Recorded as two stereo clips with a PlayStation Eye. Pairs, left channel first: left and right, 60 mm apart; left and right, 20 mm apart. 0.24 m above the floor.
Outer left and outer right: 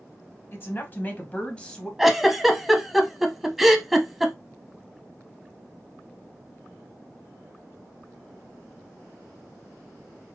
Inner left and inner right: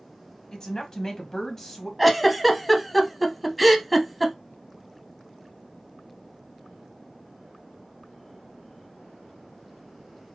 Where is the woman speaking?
40° left (ahead or behind), 1.2 m; by 1.9 s 10° left (ahead or behind), 1.1 m.